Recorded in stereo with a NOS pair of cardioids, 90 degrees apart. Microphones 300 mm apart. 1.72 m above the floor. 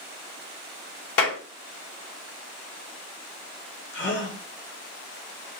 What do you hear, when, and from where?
1.2 s a clap: 55° left, 1.2 m
3.9 s a gasp: 40° left, 1.1 m